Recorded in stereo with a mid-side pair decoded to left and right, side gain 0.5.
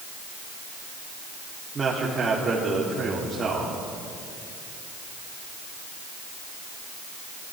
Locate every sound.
1.8 s a man speaking: 30° right, 3 m